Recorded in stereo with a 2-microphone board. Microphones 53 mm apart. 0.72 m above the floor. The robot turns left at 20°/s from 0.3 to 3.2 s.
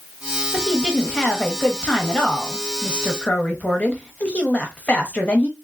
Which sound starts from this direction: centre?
A woman speaking, at 0.5 s.